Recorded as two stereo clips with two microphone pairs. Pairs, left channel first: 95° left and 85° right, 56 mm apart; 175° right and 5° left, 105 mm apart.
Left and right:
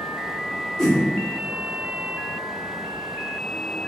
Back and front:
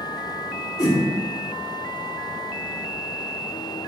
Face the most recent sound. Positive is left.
turn(degrees=165)